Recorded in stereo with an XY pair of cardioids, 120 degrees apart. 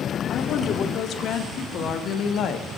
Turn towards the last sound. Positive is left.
turn(degrees=60)